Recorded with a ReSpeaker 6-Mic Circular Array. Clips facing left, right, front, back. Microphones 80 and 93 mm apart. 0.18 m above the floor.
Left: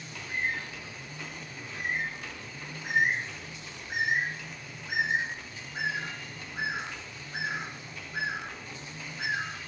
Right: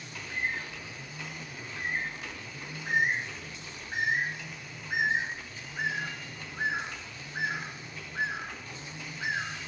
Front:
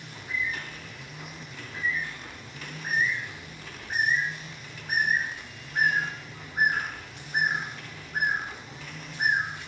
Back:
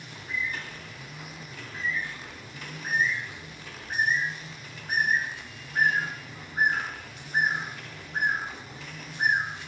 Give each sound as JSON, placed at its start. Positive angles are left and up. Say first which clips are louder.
{"t": 0.1, "sound": "a bird", "louder": "left 1 dB, front 1 dB", "azimuth_deg": 80, "distance_m": 7.5}